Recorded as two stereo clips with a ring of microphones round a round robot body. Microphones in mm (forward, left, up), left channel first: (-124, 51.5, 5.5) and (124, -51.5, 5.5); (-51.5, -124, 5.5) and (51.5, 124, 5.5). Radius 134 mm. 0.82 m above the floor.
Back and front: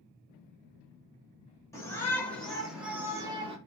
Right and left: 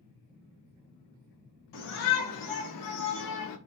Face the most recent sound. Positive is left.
turn(degrees=-90)